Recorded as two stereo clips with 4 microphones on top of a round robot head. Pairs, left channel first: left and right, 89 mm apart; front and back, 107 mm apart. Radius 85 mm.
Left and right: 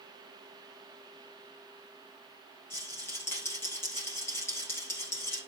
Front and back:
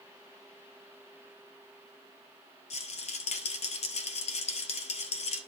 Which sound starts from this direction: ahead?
A rattle, at 2.7 s.